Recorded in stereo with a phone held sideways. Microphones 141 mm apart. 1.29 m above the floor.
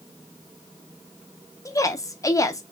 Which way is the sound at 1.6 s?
25° left (ahead or behind).